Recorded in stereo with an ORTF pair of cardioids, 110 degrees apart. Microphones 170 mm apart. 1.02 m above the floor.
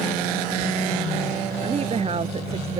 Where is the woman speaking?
35° right.